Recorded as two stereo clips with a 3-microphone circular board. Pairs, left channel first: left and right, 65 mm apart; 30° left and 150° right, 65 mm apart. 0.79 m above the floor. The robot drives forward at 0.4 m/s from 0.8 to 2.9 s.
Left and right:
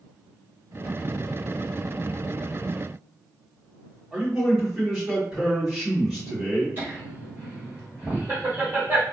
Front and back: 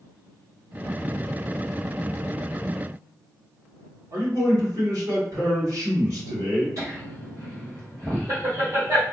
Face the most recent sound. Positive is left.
turn(degrees=-140)